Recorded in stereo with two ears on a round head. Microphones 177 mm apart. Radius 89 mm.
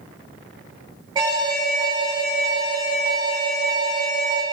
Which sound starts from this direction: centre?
An alarm, at 1.1 s.